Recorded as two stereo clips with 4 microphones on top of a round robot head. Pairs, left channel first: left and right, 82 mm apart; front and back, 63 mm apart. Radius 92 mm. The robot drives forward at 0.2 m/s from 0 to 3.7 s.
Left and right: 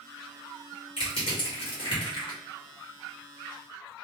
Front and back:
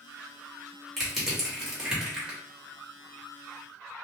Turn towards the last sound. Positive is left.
turn(degrees=115)